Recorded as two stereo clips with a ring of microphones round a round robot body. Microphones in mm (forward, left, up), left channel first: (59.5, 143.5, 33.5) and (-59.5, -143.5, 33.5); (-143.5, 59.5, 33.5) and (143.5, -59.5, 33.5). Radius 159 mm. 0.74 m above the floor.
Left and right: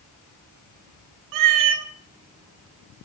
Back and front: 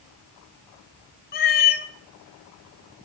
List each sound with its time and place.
1.3 s a cat meowing: 140° right, 0.5 m